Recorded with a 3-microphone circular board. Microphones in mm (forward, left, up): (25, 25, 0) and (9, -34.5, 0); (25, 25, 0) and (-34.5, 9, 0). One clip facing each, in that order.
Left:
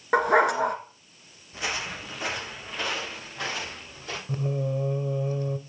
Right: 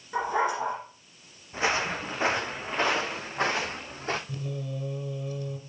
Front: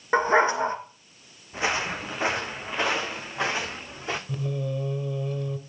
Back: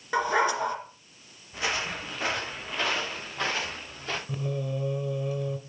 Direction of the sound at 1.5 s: 50° right.